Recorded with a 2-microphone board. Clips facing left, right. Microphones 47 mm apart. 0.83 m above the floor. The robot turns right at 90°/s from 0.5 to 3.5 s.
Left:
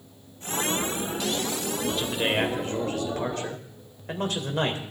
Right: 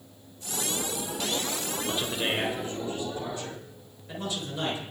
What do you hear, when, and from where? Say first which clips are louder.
1.9 s a man speaking: left 3 dB; 15° right, 3.5 m; by 4.8 s 130° left, 3.5 m